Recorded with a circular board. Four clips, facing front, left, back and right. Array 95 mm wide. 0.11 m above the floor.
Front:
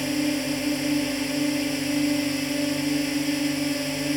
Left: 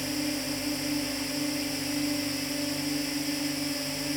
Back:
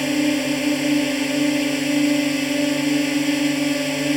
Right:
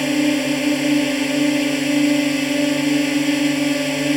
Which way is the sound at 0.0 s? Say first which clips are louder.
Right 14 dB, back 5 dB; 120° right.